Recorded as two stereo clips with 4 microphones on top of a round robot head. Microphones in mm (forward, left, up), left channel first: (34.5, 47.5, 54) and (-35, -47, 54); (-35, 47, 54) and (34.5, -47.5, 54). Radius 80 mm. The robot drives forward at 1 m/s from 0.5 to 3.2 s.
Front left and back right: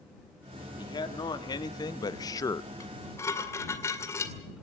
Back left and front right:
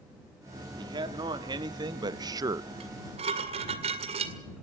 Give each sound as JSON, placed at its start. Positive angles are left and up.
{"t": 0.8, "sound": "a man speaking", "azimuth_deg": 0, "distance_m": 2.0}
{"t": 2.8, "sound": "dishes clattering", "azimuth_deg": -10, "distance_m": 2.5}